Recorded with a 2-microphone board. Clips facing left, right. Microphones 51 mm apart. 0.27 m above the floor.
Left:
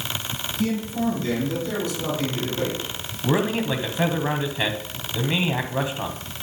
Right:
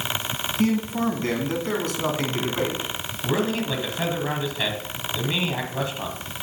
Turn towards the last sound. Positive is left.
turn(degrees=20)  # may be behind; listen again after turning